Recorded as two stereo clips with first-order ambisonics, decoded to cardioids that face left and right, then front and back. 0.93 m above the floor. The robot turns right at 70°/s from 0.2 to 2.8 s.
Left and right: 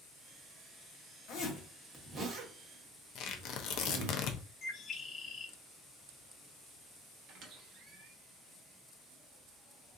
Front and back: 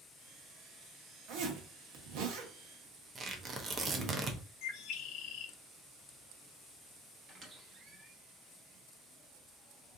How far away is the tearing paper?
About 0.5 m.